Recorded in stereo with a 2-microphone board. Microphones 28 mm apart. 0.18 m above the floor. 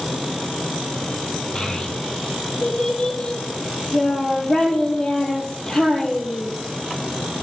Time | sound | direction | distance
1.6 | a child speaking | 30° left (ahead or behind) | 3 m